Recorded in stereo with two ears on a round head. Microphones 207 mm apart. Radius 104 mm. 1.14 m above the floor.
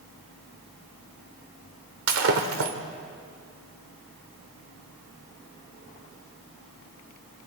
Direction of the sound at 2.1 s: 65° right (ahead or behind).